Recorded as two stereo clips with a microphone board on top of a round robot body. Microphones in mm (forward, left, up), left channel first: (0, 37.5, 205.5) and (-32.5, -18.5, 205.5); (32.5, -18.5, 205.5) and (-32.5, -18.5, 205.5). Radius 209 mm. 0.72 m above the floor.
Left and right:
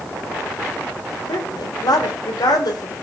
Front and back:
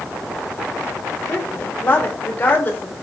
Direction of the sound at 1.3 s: 60° left.